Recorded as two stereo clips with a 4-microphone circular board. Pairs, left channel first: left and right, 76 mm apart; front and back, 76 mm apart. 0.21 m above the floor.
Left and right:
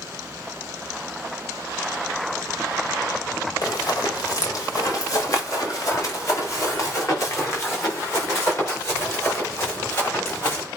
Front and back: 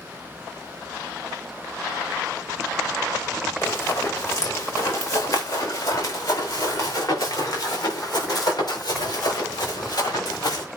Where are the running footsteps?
55° left, 3 m; by 10.6 s 35° left, 6.5 m.